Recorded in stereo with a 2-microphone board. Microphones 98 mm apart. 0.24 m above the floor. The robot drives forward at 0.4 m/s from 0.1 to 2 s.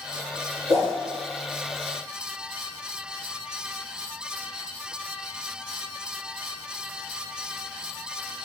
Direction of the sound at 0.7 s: 40° right (ahead or behind).